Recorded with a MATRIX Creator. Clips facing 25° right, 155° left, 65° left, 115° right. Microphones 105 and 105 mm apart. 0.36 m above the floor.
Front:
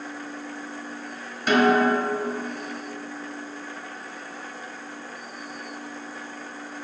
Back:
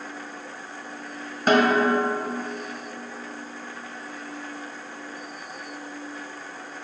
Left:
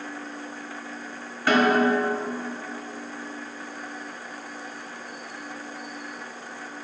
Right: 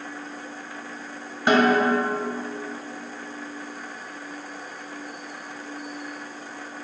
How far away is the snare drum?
About 1.2 m.